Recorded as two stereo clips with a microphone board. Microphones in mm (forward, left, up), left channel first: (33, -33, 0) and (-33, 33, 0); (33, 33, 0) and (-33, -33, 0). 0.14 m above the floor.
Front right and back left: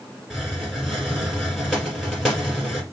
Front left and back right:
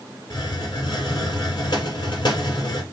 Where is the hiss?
45° left, 1.8 m.